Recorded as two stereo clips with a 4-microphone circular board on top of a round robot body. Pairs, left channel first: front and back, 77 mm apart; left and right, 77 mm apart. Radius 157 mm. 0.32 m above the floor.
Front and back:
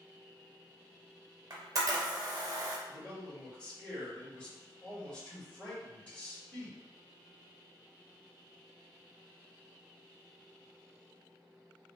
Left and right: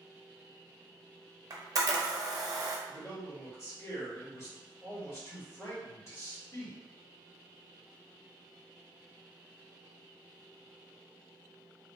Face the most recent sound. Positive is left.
turn(degrees=70)